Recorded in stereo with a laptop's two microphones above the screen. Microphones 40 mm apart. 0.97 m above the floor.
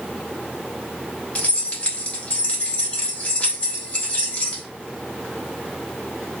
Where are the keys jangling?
40° left (ahead or behind), 1.2 m.